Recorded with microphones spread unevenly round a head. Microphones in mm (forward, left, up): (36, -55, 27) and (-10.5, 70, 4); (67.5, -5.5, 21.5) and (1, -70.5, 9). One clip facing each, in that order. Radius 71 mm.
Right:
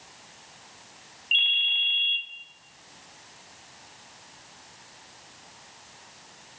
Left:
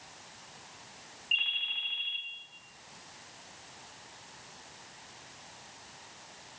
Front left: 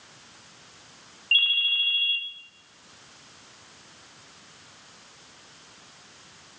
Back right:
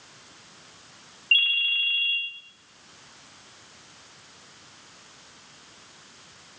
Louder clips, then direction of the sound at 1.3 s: Right 8 dB, back right 1 dB; 15° right.